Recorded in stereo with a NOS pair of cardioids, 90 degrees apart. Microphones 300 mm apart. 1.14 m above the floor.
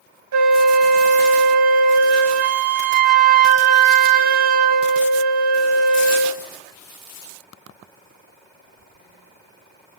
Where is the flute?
65° right, 0.9 m.